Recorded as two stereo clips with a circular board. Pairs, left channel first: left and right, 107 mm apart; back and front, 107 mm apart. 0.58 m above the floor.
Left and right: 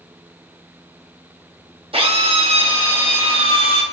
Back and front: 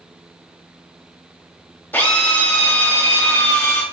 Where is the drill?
115° right, 1.6 m.